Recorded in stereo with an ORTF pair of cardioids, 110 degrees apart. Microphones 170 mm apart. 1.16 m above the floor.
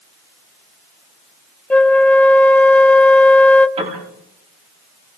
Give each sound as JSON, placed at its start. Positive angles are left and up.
{"t": 1.7, "sound": "a flute", "azimuth_deg": 10, "distance_m": 0.8}
{"t": 3.8, "sound": "a piano", "azimuth_deg": -40, "distance_m": 8.5}